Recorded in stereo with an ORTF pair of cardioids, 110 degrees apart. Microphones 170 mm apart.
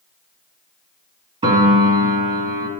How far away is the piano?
About 1.7 m.